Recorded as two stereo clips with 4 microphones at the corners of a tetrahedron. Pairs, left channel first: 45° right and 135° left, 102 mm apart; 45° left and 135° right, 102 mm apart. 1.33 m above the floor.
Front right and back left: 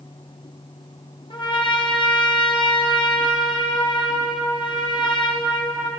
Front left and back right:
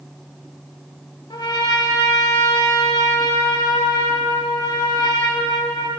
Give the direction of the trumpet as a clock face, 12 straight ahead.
12 o'clock.